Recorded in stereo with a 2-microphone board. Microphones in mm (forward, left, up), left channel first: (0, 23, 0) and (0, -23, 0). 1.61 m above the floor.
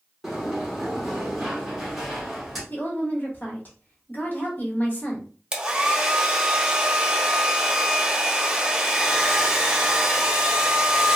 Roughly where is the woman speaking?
Left.